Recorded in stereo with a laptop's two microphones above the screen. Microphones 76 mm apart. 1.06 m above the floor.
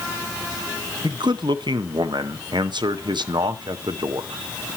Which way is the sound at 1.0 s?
80° right.